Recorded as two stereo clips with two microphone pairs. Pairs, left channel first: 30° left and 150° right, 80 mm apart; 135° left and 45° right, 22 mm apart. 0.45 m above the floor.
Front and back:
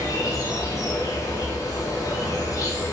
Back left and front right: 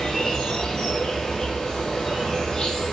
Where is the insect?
75° left, 2 m.